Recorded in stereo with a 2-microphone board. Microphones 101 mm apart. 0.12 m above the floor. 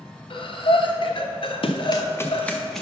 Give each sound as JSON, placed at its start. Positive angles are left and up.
{"t": 0.3, "sound": "breathing", "side_deg": 60, "distance_m": 1.0}
{"t": 1.6, "sound": "running footsteps", "side_deg": 60, "distance_m": 1.0}